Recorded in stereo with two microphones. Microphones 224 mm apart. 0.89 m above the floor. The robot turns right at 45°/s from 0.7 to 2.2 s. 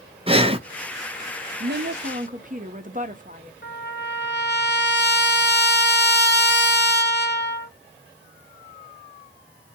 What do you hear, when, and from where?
0.3 s breathing: 25° right (ahead or behind), 0.5 m
1.6 s a woman speaking: 60° right (ahead or behind), 0.7 m; by 3.5 s 40° right (ahead or behind), 0.7 m
3.6 s a trumpet: 50° left (ahead or behind), 1.3 m